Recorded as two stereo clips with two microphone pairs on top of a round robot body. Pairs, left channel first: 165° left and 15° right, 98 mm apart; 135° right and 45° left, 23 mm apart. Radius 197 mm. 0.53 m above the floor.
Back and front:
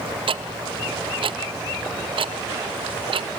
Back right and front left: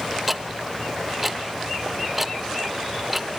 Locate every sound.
0.3 s ticking: 35° right, 0.7 m